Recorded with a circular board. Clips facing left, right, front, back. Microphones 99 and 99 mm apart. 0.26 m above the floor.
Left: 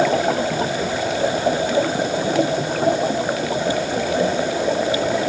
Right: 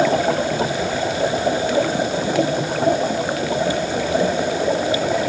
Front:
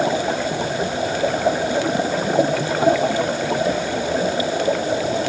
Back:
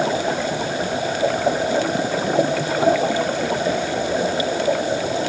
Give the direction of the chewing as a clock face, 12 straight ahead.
No chewing in this recording.